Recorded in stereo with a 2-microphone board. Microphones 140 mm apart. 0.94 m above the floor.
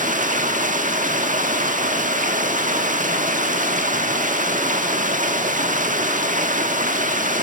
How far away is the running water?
About 1.6 m.